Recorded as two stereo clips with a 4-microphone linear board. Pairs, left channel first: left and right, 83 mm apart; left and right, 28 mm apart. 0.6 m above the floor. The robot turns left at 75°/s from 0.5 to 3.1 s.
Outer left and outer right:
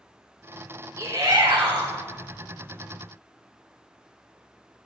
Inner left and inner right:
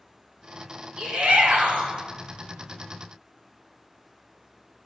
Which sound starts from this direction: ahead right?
A shout, at 1.0 s.